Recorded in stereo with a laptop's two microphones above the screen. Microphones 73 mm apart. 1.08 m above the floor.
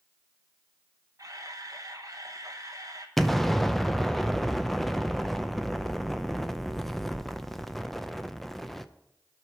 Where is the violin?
No violin in this recording.